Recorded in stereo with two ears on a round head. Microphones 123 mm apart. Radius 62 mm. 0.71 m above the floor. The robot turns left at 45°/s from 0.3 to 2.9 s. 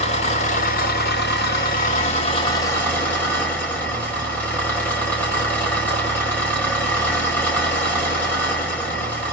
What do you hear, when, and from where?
0.0 s an engine running: 130° left, 1.9 m; by 9.3 s 10° left, 1.9 m